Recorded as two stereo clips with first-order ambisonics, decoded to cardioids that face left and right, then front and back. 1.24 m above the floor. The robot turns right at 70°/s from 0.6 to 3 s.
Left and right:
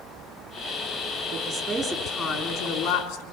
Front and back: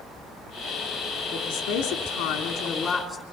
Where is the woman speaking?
40° right, 3.5 m; by 3.2 s 80° left, 3.5 m.